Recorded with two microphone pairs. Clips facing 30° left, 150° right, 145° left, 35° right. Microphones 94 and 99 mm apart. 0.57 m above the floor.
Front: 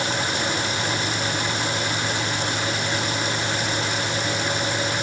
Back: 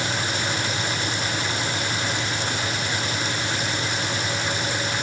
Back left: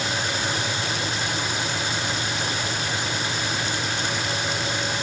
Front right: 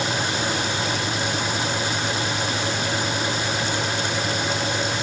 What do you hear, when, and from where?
Only background noise.